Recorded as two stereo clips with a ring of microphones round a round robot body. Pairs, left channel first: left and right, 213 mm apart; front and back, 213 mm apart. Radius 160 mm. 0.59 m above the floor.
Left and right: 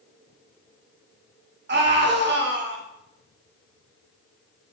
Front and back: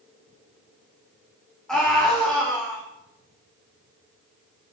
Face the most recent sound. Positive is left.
turn(degrees=-85)